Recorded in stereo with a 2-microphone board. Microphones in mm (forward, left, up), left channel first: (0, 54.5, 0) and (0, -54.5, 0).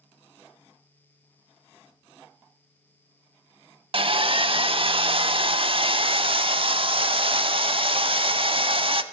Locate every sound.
3.9 s sawing: 55° right (ahead or behind), 0.5 m